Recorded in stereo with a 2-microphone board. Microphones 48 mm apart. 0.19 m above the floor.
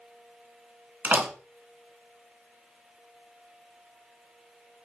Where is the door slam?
45° right (ahead or behind), 1.5 m.